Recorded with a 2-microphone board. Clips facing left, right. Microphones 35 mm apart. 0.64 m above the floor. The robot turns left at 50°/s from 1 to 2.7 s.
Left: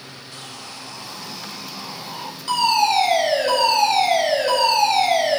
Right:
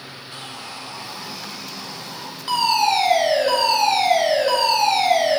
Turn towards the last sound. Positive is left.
turn(degrees=-5)  # may be behind; listen again after turning